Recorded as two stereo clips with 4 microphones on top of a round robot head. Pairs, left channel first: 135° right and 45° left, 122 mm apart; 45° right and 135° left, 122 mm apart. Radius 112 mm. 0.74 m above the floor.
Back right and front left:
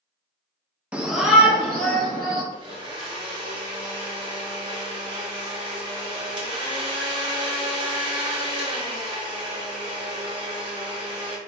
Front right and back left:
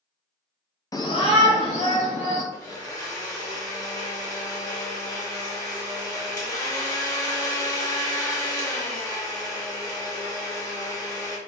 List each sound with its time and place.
0.9 s a shout: 25° right, 0.7 m; by 2.4 s 45° right, 2 m
2.5 s a blender: 10° left, 1.4 m